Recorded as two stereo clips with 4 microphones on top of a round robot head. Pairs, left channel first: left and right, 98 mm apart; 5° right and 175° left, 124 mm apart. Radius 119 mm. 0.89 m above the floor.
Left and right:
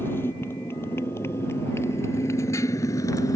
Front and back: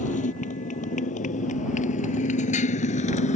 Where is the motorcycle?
15° left; by 3.4 s 25° left.